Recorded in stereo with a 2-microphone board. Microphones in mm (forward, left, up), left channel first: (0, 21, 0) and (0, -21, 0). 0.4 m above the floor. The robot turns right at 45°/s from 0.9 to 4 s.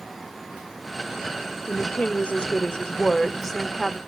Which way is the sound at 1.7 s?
25° left (ahead or behind).